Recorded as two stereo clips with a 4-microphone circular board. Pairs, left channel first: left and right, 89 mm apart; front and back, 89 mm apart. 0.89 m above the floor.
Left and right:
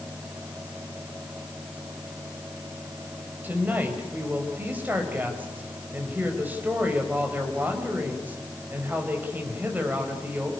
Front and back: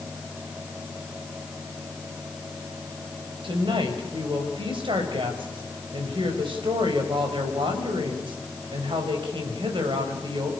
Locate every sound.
3.4 s a woman speaking: 160° right, 5 m